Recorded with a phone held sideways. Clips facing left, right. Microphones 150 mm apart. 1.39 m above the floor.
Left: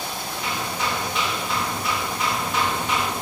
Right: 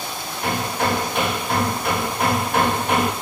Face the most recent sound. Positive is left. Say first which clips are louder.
# right 6 dB
turn(degrees=-55)  # may be behind; listen again after turning